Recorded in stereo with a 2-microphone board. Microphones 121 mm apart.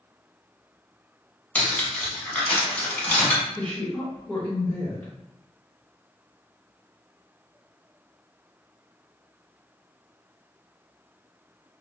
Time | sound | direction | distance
1.6 | cutlery clinking | 10° left (ahead or behind) | 0.9 m
3.5 | a woman speaking | 15° left (ahead or behind) | 1.8 m